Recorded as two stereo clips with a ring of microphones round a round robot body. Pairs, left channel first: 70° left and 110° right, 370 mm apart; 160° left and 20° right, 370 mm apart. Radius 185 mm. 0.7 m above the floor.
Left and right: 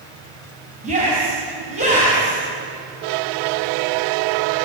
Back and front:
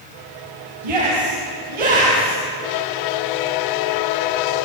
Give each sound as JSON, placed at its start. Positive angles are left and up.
{"t": 0.8, "sound": "a shout", "azimuth_deg": -40, "distance_m": 6.0}